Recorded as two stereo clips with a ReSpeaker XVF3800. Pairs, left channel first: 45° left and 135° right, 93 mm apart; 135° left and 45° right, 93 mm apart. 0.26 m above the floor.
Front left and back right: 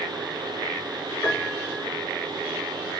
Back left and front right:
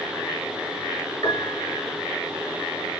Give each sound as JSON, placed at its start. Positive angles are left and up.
{"t": 1.2, "sound": "a piano", "azimuth_deg": 95, "distance_m": 3.5}